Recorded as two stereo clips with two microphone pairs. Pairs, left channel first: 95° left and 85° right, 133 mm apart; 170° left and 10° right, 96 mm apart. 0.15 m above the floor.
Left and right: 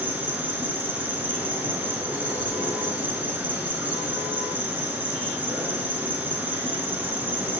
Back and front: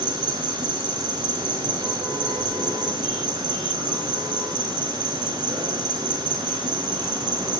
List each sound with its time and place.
0.0 s an insect: 15° right, 0.8 m